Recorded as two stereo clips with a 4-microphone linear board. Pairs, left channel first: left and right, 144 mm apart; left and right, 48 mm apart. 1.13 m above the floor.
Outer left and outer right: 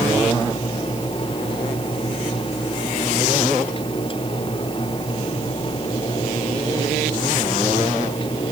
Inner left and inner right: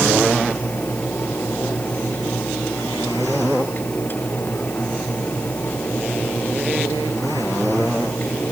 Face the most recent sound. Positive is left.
No sound to turn to.